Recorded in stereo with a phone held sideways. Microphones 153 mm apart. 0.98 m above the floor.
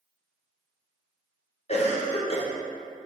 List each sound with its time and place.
1.7 s a cough: 45° left (ahead or behind), 0.8 m